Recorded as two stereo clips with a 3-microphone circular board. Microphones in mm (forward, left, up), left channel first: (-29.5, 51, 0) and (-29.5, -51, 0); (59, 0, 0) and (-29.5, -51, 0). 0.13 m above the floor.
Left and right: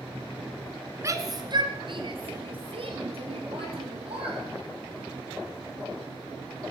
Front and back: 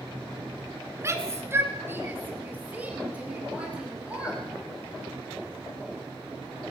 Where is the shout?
120° right, 1.5 m; by 4.4 s 70° right, 5 m.